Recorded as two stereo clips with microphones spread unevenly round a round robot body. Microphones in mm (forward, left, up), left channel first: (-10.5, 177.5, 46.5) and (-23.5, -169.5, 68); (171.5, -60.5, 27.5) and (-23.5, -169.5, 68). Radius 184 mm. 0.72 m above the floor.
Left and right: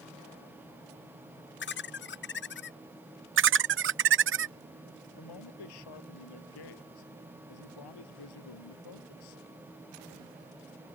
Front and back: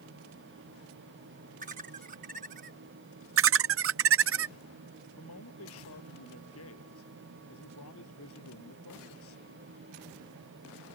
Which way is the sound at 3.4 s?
145° right.